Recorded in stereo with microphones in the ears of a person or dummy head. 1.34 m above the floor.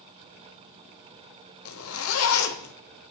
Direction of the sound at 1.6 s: 75° left (ahead or behind).